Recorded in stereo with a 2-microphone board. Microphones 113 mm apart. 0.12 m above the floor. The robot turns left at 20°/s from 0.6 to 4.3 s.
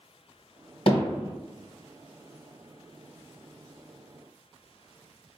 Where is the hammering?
55° left (ahead or behind), 1.7 m; by 1.3 s 50° left (ahead or behind), 1.7 m.